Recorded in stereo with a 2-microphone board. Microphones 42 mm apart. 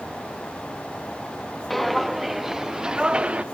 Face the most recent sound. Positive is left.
turn(degrees=-30)  # may be behind; listen again after turning